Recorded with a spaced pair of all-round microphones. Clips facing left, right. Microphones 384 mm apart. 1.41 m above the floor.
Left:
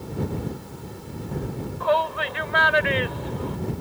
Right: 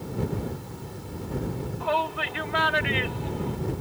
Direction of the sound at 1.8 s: 45° right (ahead or behind).